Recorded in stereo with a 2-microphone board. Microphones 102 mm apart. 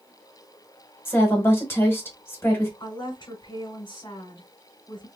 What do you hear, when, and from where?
1.1 s a woman speaking: 20° left (ahead or behind), 1.4 m
2.8 s a woman speaking: 40° left (ahead or behind), 1.8 m